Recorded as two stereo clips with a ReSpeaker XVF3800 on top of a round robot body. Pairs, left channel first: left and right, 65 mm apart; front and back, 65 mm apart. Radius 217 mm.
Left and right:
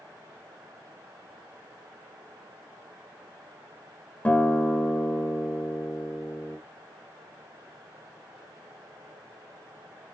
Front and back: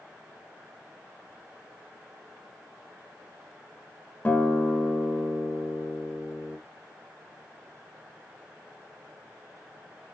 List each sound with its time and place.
4.2 s a guitar: 45° left, 1.3 m